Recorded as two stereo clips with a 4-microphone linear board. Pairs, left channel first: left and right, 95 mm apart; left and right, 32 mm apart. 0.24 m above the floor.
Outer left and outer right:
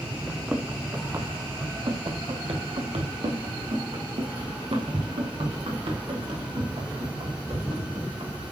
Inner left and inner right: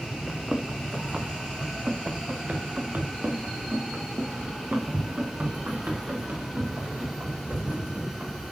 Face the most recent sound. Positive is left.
turn(degrees=-75)  # may be behind; listen again after turning